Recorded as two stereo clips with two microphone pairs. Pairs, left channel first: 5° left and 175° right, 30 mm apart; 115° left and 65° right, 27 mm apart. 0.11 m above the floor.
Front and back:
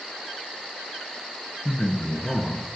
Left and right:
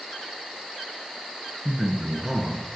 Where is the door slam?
I don't hear a door slam.